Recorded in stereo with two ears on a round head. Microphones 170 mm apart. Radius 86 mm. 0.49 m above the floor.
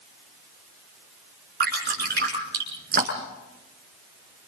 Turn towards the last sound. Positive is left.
turn(degrees=-55)  # may be behind; listen again after turning